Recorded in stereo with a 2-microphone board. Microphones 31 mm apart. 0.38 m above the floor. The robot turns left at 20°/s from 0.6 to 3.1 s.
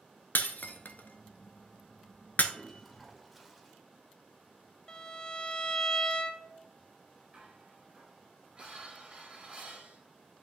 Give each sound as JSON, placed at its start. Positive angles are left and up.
{"t": 0.3, "sound": "breaking glass", "side_deg": 70, "distance_m": 0.6}
{"t": 2.5, "sound": "a toilet flushing", "side_deg": 5, "distance_m": 1.0}
{"t": 4.9, "sound": "a violin", "side_deg": 25, "distance_m": 0.6}
{"t": 7.3, "sound": "dishes clattering", "side_deg": -30, "distance_m": 4.0}